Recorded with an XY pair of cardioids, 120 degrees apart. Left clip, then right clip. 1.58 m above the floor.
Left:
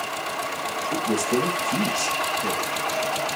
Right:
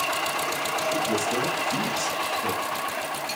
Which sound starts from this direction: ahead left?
A woman speaking, at 0.9 s.